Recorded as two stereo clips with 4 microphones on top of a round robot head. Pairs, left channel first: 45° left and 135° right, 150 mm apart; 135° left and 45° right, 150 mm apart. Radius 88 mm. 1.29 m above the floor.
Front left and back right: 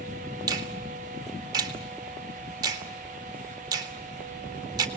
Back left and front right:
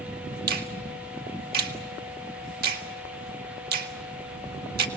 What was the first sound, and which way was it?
A finger snap, 70° right.